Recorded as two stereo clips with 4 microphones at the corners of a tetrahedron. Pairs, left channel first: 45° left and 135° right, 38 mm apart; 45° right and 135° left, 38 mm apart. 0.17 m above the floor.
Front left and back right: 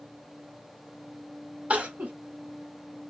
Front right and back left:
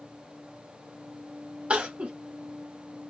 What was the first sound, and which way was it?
Crying, straight behind.